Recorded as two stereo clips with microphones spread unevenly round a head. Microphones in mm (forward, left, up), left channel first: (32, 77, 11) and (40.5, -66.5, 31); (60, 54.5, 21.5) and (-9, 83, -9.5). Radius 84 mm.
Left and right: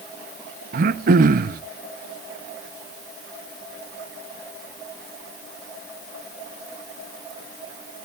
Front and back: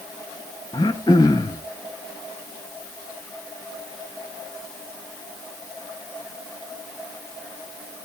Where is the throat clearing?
65° right, 0.6 m.